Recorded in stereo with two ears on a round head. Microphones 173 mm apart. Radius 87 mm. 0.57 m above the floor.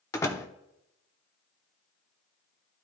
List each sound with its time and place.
0.1 s a door slam: 15° left (ahead or behind), 0.9 m